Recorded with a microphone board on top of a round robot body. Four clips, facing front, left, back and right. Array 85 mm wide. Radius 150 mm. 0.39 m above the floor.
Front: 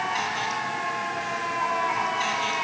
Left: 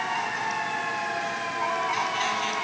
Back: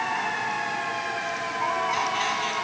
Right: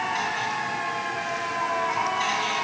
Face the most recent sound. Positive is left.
No sound to turn to.